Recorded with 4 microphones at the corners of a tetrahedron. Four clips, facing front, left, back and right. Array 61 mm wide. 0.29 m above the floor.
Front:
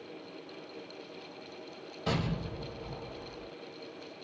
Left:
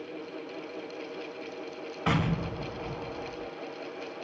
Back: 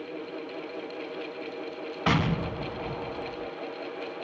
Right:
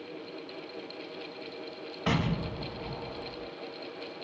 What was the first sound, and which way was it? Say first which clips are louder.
An explosion: left 1 dB, back 8 dB; 165° left.